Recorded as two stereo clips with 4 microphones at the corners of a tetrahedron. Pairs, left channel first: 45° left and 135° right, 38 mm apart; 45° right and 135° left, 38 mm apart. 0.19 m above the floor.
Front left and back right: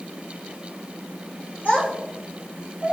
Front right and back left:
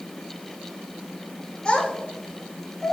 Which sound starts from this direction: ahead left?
A child speaking, at 1.6 s.